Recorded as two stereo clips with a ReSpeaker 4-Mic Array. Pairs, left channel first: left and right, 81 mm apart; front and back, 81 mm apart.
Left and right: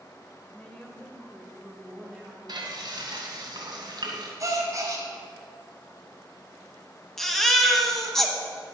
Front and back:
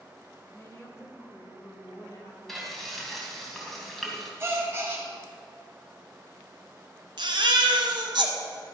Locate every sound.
0.5 s a woman speaking: 30° left, 1.5 m; by 2.4 s 15° right, 1.9 m
2.5 s frying: 85° right, 2 m
4.4 s a gasp: 125° right, 2 m
7.2 s a baby crying: 175° left, 1.2 m